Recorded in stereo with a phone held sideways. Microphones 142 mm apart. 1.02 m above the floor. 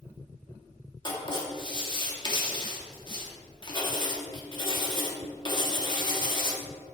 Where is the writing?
35° left (ahead or behind), 1.7 m.